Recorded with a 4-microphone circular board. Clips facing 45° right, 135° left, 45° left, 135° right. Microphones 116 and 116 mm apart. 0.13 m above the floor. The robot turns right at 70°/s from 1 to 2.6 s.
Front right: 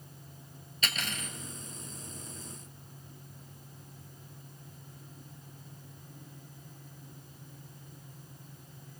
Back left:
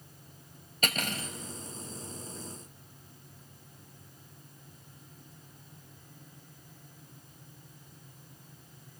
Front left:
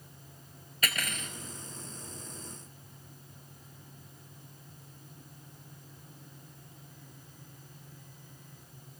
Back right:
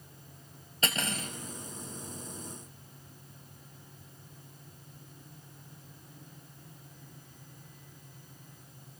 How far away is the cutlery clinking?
About 1.2 m.